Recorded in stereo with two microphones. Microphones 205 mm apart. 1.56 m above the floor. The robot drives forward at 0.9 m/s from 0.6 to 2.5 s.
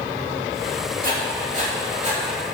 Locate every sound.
1.0 s writing: 45° right (ahead or behind), 2.5 m; by 2.2 s 30° right (ahead or behind), 3.5 m